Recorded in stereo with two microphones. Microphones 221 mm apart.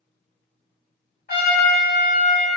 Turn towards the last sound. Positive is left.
turn(degrees=45)  # may be behind; listen again after turning